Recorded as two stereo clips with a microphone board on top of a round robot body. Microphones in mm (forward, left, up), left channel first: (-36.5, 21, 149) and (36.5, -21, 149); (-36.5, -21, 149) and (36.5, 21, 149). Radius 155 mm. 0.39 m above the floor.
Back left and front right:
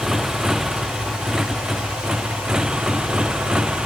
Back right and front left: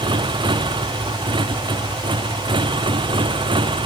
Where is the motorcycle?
55° left; by 3.9 s 50° left.